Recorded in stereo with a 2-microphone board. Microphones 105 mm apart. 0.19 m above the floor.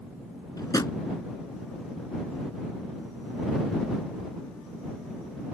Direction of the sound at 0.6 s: 35° left (ahead or behind).